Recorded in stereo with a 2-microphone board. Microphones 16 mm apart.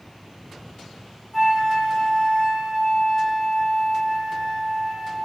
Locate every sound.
1.3 s a flute: 15° right (ahead or behind), 1.0 m